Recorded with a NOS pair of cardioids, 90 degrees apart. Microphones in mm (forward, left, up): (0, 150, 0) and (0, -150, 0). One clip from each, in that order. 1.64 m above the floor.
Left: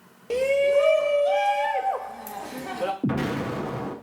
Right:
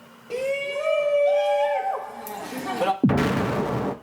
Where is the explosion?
25° right, 0.5 m.